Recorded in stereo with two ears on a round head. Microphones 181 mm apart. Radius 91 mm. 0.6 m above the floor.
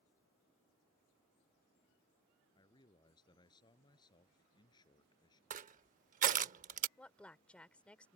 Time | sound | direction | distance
2.5 | a man speaking | 20° left (ahead or behind) | ?
5.5 | crushing | 35° right (ahead or behind) | ?
7.0 | a woman speaking | 5° left (ahead or behind) | ?